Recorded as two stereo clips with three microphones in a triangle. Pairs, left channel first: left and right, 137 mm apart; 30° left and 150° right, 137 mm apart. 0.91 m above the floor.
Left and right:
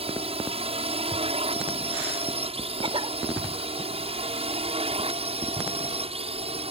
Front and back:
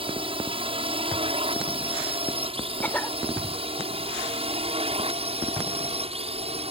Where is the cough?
45° right.